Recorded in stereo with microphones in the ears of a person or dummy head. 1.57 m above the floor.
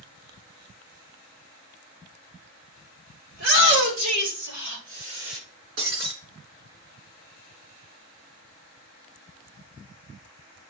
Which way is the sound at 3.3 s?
85° right.